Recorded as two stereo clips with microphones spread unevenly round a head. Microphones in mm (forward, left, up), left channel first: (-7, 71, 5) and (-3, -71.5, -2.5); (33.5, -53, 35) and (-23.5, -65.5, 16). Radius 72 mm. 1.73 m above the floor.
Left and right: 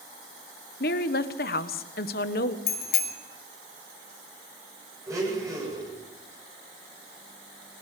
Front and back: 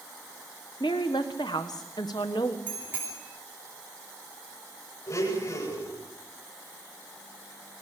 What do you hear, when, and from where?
0.8 s a woman speaking: 65° left, 1.4 m
2.7 s a bicycle bell: 110° left, 3 m
5.1 s a blender: 15° right, 9.5 m